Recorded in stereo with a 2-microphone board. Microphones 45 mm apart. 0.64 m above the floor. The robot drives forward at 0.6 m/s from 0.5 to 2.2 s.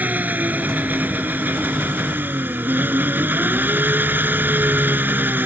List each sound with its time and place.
0.0 s an engine running: 40° right (ahead or behind); by 5.5 s 45° right (ahead or behind)